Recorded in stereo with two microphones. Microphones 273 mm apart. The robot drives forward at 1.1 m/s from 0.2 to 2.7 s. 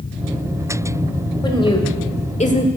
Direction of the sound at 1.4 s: 15° left (ahead or behind).